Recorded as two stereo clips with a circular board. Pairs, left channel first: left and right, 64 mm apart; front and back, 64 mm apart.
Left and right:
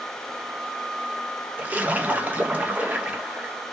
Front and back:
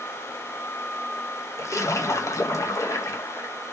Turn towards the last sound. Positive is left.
turn(degrees=-30)